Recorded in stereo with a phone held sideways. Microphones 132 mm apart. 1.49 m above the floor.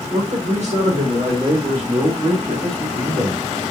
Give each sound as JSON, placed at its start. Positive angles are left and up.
{"t": 0.1, "sound": "a man speaking", "side_deg": -65, "distance_m": 1.3}